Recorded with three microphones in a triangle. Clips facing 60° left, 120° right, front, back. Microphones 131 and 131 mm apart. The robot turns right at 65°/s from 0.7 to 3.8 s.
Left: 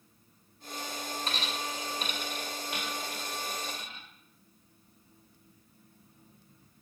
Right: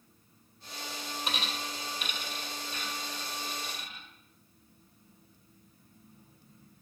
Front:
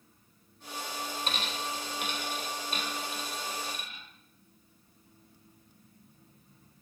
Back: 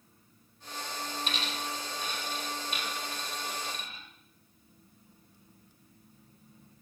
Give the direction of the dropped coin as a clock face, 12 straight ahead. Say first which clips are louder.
Right 1 dB, front 1 dB; 2 o'clock.